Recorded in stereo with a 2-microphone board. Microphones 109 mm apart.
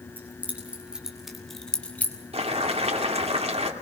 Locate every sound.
0.2 s keys jangling: 15° right (ahead or behind), 4.5 m; by 2.2 s 20° left (ahead or behind), 2.5 m
2.3 s boiling: 70° right (ahead or behind), 2 m